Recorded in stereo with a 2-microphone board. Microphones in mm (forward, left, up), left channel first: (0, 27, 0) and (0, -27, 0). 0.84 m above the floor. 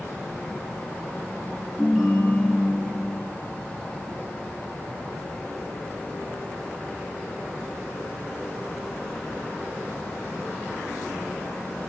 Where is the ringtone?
Centre (ahead or behind), 3.5 m.